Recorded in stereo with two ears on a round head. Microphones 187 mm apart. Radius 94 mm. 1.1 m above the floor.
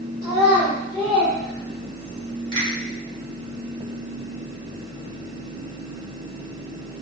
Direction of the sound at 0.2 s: 30° left (ahead or behind).